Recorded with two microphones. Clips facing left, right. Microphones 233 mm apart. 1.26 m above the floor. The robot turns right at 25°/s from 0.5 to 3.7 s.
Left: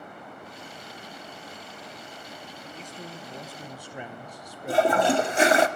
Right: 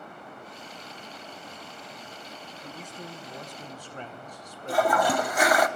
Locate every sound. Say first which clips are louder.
2.6 s a man speaking: right 1 dB; 15° right (ahead or behind), 1.2 m; by 5.7 s 10° left (ahead or behind), 1.2 m
4.7 s a toilet flushing: left 3 dB; 25° left (ahead or behind), 0.6 m